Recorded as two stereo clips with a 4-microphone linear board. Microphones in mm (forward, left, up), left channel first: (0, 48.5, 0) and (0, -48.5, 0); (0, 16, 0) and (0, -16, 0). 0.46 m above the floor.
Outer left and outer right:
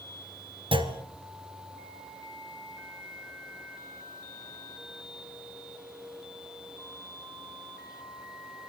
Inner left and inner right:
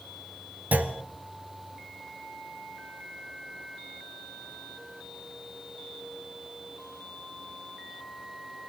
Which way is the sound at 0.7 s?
60° right (ahead or behind).